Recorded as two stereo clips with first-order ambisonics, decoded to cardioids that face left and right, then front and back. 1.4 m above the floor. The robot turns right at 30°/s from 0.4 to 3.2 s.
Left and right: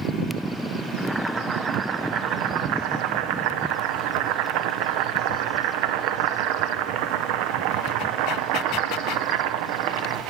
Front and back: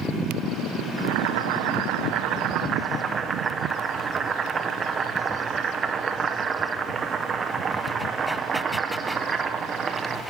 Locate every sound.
1.0 s boiling: 175° right, 0.6 m; by 10.2 s 110° right, 0.6 m